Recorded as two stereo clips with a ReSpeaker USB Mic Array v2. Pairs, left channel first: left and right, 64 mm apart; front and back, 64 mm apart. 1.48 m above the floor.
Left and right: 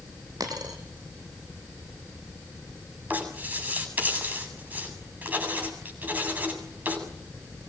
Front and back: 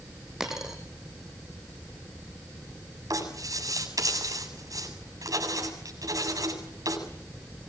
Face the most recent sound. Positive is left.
turn(degrees=-155)